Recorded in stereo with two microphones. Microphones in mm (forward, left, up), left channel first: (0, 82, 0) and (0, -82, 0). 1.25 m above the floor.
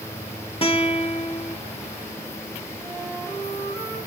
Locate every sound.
0.6 s a guitar: 35° left (ahead or behind), 1.0 m
2.8 s a flute: 20° left (ahead or behind), 8.5 m